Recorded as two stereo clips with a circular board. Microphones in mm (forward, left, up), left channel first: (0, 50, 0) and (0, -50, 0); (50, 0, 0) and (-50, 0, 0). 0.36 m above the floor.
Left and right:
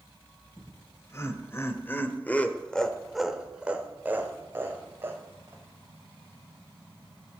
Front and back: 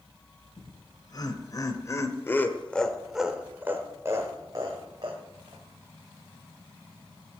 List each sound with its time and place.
0.6 s laughter: 35° left, 1.9 m; by 5.6 s 145° right, 2.0 m